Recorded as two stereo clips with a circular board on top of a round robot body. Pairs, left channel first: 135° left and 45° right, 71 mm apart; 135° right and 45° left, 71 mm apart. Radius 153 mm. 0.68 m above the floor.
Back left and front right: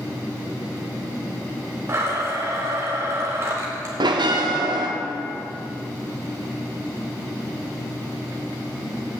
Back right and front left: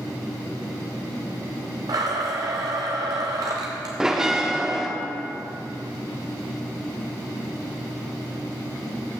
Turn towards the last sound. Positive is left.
turn(degrees=-35)